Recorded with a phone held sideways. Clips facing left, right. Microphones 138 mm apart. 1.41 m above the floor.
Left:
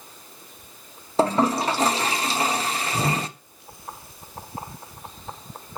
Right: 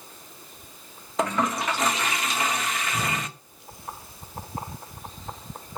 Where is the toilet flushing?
30° left (ahead or behind), 0.7 m.